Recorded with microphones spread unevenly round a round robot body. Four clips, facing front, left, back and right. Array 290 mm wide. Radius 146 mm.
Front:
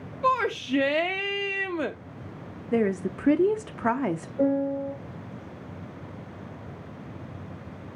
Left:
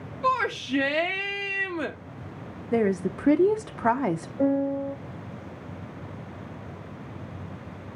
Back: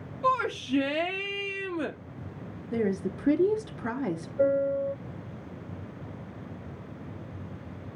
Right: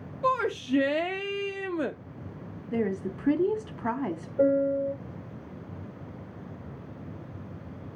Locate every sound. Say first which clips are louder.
0.2 s a shout: left 1 dB, front 2 dB; 45° right, 0.6 m
2.7 s a woman speaking: left 5 dB, front 4 dB; 50° left, 0.7 m
4.4 s a piano: right 2 dB, even; 60° right, 6 m